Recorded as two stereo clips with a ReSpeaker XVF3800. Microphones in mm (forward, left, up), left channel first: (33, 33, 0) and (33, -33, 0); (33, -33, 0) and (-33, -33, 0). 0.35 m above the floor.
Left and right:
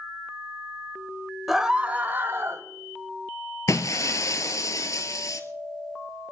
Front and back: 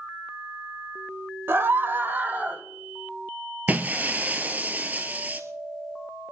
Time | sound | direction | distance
1.5 | a scream | 175° right | 1.0 m
3.7 | breaking glass | 115° left | 1.1 m